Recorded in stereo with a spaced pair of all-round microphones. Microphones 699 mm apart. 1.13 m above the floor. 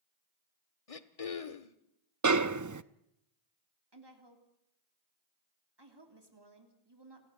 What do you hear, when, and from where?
0.9 s throat clearing: 55° left (ahead or behind), 1.2 m
2.2 s a snare drum: 30° right (ahead or behind), 0.6 m
3.9 s a woman speaking: 35° right (ahead or behind), 3.5 m